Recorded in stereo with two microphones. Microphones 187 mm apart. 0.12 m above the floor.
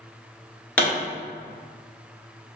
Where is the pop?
10° left (ahead or behind), 1.9 m.